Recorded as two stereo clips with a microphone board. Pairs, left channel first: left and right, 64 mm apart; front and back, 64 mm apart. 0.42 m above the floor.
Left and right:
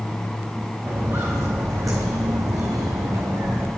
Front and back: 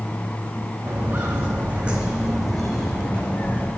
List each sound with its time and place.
0.9 s footsteps: 135° right, 2.5 m; by 3.7 s 55° right, 2.0 m